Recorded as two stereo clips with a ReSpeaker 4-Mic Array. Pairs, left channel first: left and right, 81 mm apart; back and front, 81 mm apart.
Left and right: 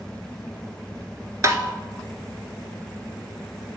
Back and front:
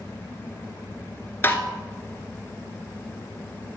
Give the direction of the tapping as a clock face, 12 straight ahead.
4 o'clock.